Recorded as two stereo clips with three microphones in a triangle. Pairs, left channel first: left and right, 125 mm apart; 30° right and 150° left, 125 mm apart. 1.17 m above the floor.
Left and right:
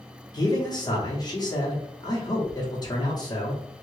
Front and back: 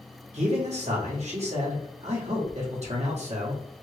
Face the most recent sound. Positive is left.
turn(degrees=140)